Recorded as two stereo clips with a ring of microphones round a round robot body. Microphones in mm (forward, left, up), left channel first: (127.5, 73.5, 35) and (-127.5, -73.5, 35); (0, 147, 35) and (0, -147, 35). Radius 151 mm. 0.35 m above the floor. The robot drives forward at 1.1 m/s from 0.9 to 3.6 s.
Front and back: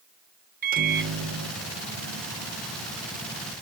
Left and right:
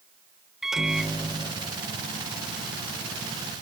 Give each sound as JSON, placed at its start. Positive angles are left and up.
{"t": 0.6, "sound": "a microwave", "azimuth_deg": -175}